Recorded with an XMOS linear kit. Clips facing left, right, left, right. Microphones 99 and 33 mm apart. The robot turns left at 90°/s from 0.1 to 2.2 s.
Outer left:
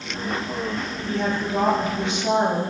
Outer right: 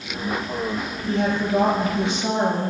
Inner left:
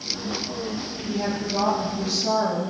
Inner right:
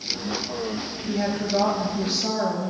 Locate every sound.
1.1 s a woman speaking: 35° right, 5.5 m; by 2.7 s 135° right, 5.5 m